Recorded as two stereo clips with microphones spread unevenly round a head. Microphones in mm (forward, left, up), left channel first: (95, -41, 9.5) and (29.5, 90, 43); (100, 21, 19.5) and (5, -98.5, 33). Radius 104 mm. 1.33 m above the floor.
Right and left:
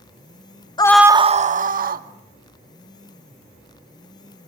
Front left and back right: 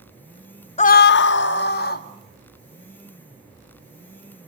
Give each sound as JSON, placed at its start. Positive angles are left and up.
{"t": 0.8, "sound": "a scream", "azimuth_deg": 0, "distance_m": 0.5}